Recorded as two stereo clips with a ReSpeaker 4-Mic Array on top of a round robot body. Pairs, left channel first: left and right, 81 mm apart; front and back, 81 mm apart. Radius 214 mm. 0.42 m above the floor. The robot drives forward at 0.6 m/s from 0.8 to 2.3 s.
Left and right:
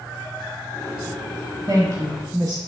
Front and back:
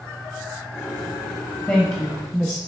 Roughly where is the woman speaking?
Right.